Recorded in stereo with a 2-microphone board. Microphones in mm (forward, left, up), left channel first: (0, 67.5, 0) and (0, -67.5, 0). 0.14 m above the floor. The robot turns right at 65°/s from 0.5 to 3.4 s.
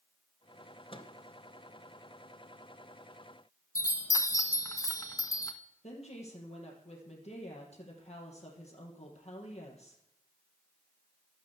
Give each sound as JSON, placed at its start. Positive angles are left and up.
{"t": 0.9, "sound": "a microwave", "side_deg": 40, "distance_m": 1.5}
{"t": 3.8, "sound": "a chime", "side_deg": 25, "distance_m": 1.3}
{"t": 5.8, "sound": "a woman speaking", "side_deg": 50, "distance_m": 4.0}